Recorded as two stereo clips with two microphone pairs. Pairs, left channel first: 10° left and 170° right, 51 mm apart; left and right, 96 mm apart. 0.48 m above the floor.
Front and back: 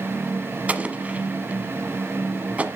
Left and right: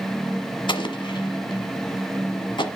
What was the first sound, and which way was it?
An explosion, 125° left.